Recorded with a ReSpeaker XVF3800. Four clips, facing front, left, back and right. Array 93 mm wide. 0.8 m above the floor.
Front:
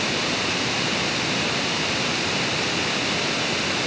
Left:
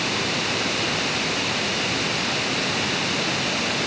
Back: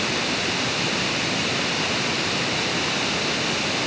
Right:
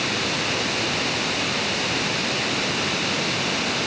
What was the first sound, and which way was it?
Only background noise.